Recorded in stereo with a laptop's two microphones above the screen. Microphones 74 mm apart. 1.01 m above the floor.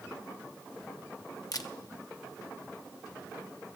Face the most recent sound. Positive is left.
turn(degrees=55)  # may be behind; listen again after turning